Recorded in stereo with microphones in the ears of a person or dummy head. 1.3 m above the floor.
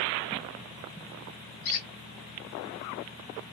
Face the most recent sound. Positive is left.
turn(degrees=65)  # may be behind; listen again after turning